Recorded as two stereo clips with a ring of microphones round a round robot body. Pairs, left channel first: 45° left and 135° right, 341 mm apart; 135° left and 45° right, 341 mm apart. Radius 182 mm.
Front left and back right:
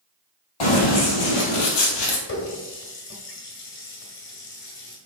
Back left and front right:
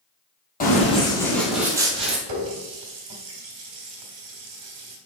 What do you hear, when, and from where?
0.6 s running footsteps: 70° left, 1.9 m; by 2.2 s 25° left, 1.7 m
2.3 s a running tap: 10° right, 1.7 m